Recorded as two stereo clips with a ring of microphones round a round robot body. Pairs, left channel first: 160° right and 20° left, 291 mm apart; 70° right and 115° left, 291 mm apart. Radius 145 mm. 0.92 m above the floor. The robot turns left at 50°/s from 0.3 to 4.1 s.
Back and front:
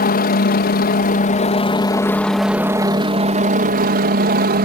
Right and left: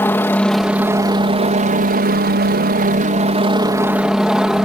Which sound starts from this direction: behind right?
A helicopter, at 0.0 s.